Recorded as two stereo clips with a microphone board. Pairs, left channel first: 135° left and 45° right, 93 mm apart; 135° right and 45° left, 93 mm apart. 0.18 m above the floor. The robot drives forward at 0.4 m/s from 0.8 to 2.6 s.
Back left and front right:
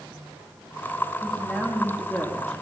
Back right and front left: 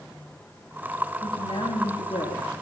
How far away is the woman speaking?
About 9 m.